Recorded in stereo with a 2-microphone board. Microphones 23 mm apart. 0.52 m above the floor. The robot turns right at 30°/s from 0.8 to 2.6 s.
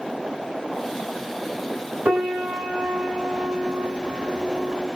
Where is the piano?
80° right, 3 m; by 4.9 s 65° right (ahead or behind), 3 m.